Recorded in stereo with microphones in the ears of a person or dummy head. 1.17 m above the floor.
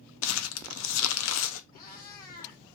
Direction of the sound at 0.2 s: 80° left.